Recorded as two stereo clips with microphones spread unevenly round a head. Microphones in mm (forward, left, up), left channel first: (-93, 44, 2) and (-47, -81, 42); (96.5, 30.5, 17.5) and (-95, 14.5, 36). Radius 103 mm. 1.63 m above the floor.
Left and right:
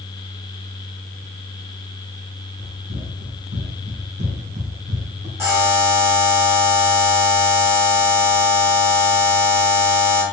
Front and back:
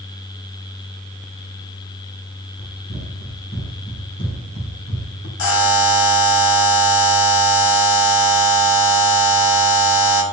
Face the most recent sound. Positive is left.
turn(degrees=-10)